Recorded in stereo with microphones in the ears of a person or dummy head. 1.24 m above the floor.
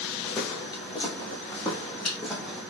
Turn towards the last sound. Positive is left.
turn(degrees=0)  # may be behind; listen again after turning